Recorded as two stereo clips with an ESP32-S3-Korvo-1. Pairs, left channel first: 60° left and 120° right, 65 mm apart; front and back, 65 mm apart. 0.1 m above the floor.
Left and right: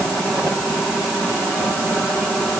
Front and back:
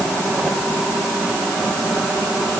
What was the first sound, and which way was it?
Only background noise.